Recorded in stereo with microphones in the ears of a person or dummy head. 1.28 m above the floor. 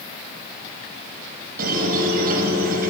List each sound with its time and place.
1.6 s a squeak: 55° right (ahead or behind), 4.5 m